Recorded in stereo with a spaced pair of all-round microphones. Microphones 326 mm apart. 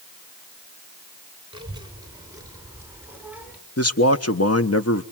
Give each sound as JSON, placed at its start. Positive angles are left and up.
{"t": 1.5, "sound": "a child speaking", "side_deg": -15, "distance_m": 5.5}
{"t": 3.8, "sound": "a man speaking", "side_deg": 45, "distance_m": 1.2}